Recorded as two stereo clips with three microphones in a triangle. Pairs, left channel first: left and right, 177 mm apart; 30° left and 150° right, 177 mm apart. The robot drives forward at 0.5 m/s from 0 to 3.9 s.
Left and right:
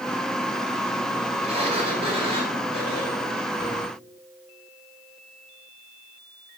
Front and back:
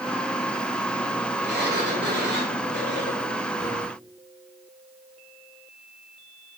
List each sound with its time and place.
1.4 s a sliding door: 145° right, 5 m; by 3.9 s 155° right, 6 m